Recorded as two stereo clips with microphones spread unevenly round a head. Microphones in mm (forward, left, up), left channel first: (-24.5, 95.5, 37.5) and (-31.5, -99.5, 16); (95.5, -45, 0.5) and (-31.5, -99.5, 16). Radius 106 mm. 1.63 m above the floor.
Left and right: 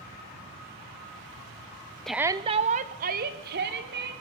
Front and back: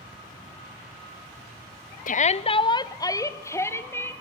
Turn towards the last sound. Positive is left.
turn(degrees=-50)